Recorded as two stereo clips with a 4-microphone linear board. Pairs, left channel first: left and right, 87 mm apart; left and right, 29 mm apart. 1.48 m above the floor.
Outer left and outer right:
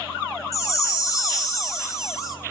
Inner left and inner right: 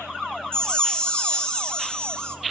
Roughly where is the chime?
Left.